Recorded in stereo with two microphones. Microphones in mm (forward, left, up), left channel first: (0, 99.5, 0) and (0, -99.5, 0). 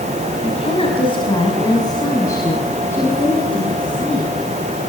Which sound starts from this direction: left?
A woman speaking, at 0.4 s.